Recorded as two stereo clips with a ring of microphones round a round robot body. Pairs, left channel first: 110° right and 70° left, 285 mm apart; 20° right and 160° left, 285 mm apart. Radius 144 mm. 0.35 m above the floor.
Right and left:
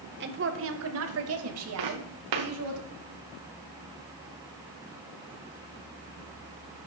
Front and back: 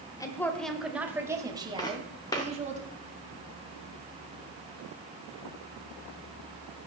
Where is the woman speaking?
50° left, 1.6 m; by 2.8 s 95° left, 3 m.